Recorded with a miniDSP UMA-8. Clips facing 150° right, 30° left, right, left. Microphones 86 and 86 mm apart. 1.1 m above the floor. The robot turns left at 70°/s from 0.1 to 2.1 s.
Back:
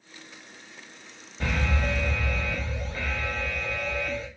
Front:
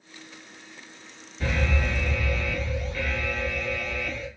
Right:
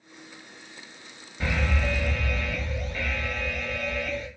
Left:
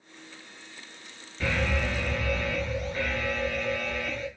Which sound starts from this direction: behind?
An alarm, at 1.4 s.